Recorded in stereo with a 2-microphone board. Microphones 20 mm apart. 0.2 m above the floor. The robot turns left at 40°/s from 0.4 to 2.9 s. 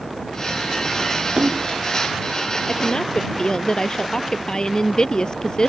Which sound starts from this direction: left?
A woman speaking, at 2.7 s.